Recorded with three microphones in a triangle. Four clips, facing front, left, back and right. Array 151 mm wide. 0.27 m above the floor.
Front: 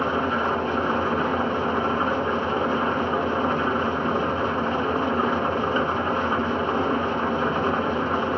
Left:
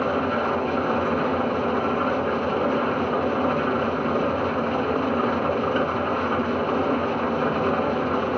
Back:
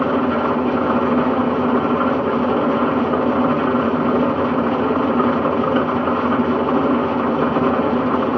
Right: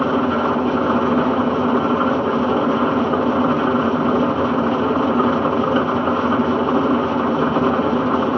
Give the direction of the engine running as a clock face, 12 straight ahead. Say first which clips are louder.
Right 5 dB, back 6 dB; 5 o'clock.